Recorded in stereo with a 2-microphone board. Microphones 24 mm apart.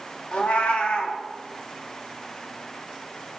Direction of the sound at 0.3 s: 60° left (ahead or behind).